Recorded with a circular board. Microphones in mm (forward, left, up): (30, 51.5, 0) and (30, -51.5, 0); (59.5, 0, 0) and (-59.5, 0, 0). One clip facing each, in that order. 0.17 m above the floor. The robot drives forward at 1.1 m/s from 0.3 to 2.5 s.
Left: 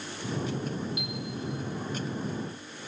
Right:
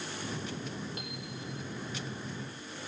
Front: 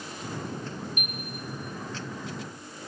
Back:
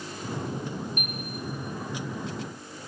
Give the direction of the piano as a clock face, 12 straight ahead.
4 o'clock.